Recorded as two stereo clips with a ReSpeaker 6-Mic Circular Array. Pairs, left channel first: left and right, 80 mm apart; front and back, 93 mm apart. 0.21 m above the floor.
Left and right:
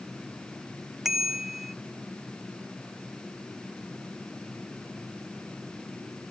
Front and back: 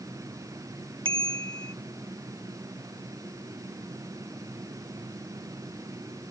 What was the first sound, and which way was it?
A bicycle bell, 175° right.